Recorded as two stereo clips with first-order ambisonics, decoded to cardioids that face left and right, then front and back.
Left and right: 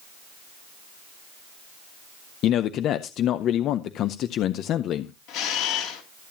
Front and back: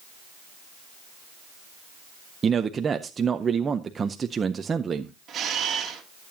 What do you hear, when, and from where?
2.4 s a man speaking: 115° left, 0.5 m
5.3 s a camera shutter: 115° left, 2.5 m